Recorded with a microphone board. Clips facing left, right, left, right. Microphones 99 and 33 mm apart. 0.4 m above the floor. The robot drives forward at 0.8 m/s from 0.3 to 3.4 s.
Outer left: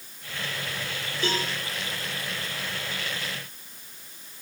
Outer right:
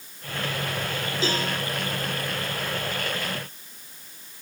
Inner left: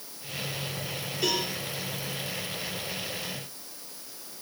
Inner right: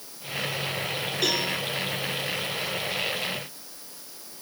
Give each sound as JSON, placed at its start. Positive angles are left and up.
{"t": 1.2, "sound": "a cowbell", "side_deg": -80, "distance_m": 4.0}